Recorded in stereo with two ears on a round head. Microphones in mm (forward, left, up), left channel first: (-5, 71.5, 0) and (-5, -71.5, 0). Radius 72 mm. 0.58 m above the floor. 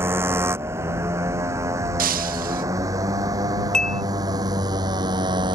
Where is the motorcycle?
15° right (ahead or behind); by 5.6 s 25° right (ahead or behind).